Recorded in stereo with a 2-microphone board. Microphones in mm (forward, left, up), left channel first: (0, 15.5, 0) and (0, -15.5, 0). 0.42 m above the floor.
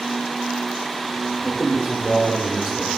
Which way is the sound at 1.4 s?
5° right (ahead or behind).